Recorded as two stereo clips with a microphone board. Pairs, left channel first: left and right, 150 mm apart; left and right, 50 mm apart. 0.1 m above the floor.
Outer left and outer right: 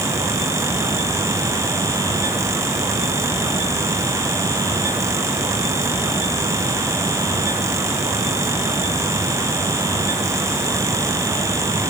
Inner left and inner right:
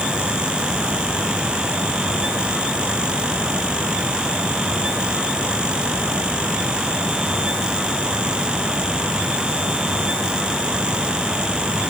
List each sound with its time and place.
Only background noise.